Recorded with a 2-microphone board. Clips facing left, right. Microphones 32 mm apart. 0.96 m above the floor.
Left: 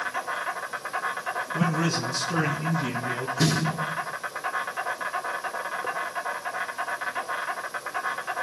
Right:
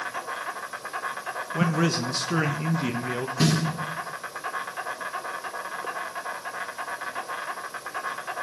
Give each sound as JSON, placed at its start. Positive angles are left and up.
{"t": 0.0, "sound": "an insect", "side_deg": 10, "distance_m": 1.2}
{"t": 1.5, "sound": "a man speaking", "side_deg": -40, "distance_m": 1.2}
{"t": 3.4, "sound": "a snare drum", "side_deg": -90, "distance_m": 9.5}